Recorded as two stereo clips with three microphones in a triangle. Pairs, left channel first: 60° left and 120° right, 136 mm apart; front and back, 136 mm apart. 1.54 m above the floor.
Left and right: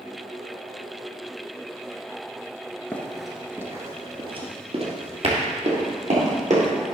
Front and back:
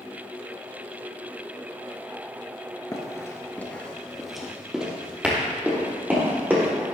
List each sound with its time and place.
2.9 s running footsteps: straight ahead, 1.6 m; by 6.7 s 105° right, 5 m